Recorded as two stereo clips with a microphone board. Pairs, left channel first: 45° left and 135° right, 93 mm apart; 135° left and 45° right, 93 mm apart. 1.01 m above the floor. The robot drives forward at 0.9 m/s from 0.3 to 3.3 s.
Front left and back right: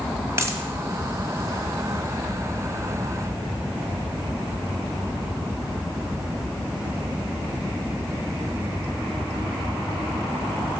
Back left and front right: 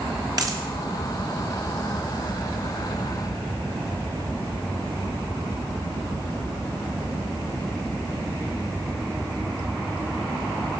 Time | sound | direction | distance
0.4 | a dropped coin | 80° right | 1.4 m